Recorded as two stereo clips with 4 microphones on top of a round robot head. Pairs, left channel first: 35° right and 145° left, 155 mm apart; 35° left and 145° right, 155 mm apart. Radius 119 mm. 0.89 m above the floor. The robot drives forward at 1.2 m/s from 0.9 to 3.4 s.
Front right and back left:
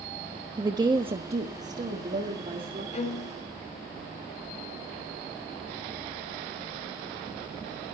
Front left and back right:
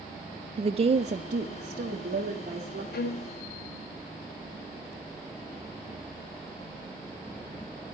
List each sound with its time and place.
0.6 s a woman speaking: 165° right, 0.6 m; by 2.8 s straight behind, 2.5 m
2.9 s a violin: 15° left, 1.3 m; by 3.3 s 20° left, 0.9 m